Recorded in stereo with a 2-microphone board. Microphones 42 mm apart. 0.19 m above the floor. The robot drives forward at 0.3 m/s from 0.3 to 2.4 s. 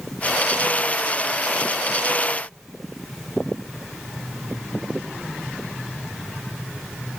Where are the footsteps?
No footsteps in this recording.